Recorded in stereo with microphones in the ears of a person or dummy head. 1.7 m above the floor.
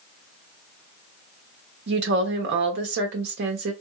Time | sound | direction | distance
1.9 | a woman speaking | 60° right (ahead or behind) | 1.0 m